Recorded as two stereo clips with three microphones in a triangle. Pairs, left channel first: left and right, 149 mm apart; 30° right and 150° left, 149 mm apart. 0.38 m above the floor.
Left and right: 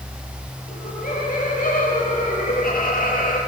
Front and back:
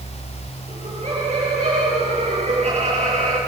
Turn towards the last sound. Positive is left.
turn(degrees=110)